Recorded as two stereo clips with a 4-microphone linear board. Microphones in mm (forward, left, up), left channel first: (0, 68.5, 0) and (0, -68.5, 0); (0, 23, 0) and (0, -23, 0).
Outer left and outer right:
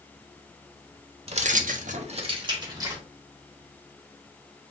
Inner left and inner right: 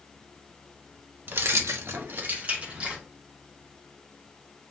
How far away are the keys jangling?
About 0.7 m.